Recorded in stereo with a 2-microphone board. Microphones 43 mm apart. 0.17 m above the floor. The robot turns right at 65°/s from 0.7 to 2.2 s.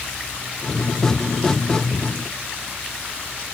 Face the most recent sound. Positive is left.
No sound to turn to.